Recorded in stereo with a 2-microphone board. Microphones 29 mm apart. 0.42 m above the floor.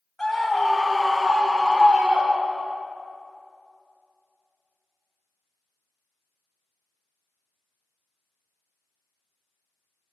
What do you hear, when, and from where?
0.2 s a scream: 10° left (ahead or behind), 1.3 m; by 2.8 s 45° right (ahead or behind), 1.4 m